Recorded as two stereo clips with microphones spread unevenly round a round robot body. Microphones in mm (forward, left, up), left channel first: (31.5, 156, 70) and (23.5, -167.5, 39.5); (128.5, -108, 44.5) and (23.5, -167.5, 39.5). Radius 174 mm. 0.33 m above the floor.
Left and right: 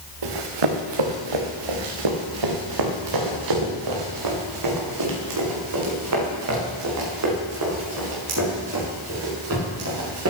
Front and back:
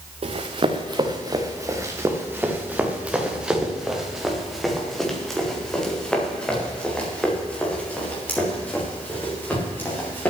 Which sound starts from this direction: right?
Running footsteps, at 0.2 s.